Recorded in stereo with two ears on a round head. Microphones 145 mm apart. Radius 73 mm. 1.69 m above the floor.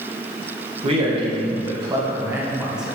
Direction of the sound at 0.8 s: 40° right (ahead or behind).